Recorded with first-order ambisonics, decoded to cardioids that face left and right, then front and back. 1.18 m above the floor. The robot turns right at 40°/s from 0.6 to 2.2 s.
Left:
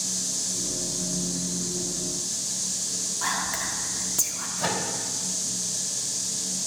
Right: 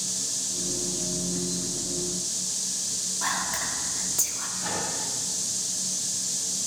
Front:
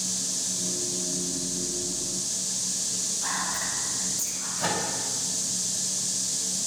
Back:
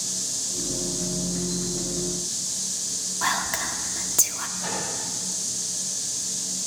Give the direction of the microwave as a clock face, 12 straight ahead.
10 o'clock.